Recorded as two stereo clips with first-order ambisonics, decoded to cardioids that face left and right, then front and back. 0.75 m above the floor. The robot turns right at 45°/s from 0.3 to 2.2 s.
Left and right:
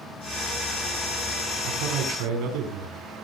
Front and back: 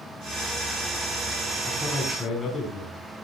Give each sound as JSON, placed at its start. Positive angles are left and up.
{"t": 1.6, "sound": "a man speaking", "azimuth_deg": -95, "distance_m": 7.0}